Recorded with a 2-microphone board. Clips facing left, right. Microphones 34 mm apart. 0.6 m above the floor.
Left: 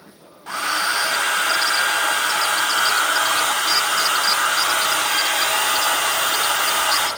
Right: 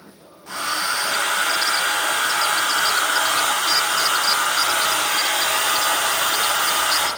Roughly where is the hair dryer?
Left.